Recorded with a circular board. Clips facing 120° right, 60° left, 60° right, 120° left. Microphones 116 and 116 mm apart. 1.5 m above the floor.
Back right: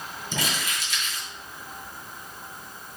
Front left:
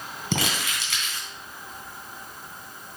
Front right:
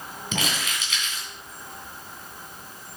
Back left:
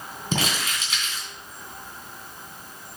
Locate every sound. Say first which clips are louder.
0.3 s crumpling: front left 3 dB, back left 3 dB; 65° left, 3 m